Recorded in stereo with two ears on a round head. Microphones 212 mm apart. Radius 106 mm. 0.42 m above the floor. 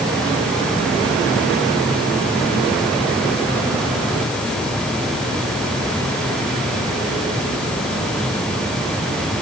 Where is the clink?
No clink in this recording.